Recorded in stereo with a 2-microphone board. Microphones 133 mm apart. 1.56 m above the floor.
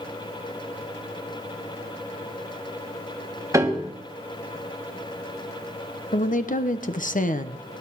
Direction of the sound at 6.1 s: 70° left (ahead or behind).